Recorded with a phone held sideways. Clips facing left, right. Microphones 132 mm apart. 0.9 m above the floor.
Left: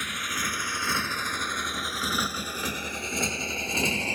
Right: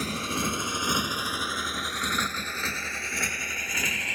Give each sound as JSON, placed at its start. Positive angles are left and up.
{"t": 0.0, "sound": "a motorcycle", "side_deg": -35}